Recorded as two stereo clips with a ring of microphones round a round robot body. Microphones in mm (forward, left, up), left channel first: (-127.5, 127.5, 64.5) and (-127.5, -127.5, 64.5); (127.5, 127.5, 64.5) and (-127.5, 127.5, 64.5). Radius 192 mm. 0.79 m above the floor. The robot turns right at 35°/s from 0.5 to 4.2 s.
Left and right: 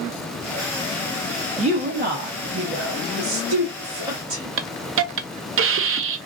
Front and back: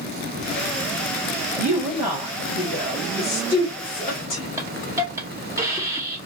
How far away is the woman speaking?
About 1.1 m.